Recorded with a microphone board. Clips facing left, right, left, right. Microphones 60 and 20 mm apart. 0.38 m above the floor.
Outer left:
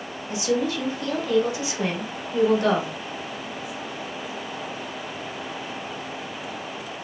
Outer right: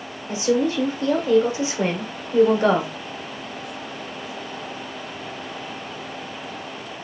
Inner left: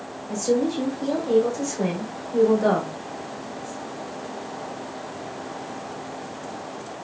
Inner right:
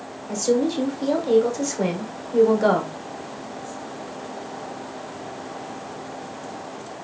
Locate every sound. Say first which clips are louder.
0.3 s a woman speaking: outer right 4 dB, inner right 1 dB; 35° right (ahead or behind), 1.1 m